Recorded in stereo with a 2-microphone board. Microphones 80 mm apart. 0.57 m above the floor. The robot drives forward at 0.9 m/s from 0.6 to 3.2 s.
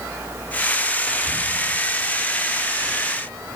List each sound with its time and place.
1.1 s whispering: 10° right (ahead or behind), 2 m